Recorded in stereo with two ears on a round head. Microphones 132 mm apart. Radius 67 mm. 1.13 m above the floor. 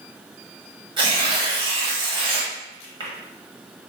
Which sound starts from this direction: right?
Tearing paper, at 1.0 s.